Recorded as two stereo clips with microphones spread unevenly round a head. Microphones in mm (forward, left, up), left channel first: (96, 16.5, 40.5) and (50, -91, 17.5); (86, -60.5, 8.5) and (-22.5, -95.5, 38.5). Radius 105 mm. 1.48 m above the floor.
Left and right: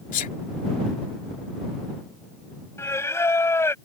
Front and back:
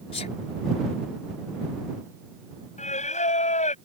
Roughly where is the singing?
Ahead.